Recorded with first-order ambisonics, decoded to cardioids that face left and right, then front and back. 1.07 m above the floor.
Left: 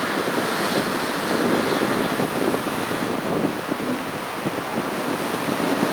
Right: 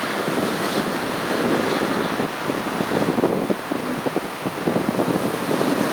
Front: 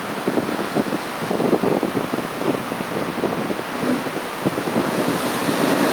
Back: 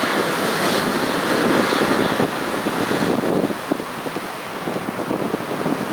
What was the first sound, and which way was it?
Only background noise.